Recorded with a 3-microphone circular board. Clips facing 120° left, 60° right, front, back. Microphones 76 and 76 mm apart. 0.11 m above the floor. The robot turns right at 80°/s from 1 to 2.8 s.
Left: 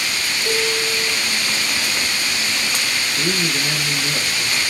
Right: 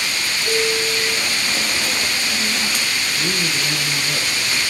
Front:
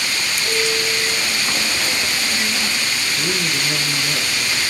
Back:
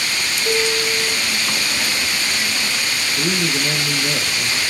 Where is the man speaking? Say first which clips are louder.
Left 3 dB, back 4 dB; 160° right, 2.5 m.